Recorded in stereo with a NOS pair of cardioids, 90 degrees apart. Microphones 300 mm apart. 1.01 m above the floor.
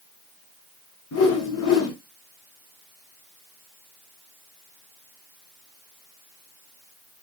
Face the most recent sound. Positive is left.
turn(degrees=60)